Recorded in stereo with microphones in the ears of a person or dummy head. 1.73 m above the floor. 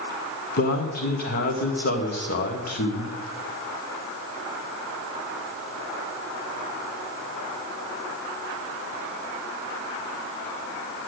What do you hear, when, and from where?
0.6 s a man speaking: 50° left (ahead or behind), 1.5 m